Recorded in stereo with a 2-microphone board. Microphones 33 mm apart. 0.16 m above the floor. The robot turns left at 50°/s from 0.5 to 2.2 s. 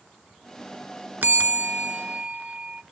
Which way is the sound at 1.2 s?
95° right.